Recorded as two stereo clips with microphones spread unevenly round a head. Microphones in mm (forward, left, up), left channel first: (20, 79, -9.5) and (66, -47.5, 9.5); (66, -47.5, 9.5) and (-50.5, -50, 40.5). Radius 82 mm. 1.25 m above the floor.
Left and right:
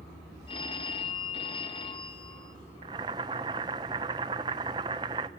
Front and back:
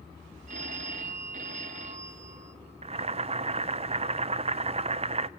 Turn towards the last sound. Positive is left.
turn(degrees=-140)